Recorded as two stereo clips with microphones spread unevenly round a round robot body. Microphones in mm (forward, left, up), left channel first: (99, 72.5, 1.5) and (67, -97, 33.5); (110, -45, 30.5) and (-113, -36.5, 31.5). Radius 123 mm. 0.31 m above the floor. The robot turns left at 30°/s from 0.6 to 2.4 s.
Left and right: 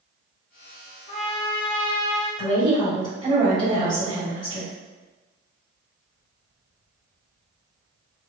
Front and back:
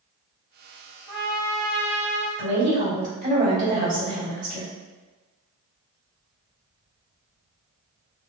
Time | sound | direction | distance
1.1 | a trumpet | 145° right | 1.2 m
2.4 | a woman speaking | 165° right | 1.8 m